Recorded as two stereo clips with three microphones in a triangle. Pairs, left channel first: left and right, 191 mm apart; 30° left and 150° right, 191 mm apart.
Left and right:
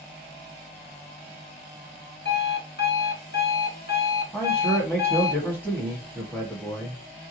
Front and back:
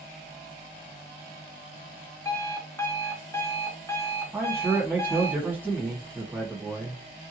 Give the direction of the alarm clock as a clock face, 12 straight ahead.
9 o'clock.